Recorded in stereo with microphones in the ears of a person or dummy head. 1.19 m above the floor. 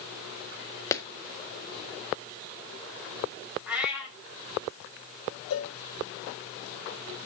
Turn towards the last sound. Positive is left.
turn(degrees=80)